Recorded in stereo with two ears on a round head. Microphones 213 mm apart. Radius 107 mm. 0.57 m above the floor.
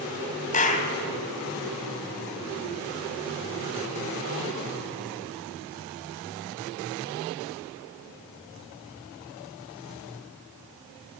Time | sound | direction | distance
0.5 | a clap | 30° left (ahead or behind) | 2.5 m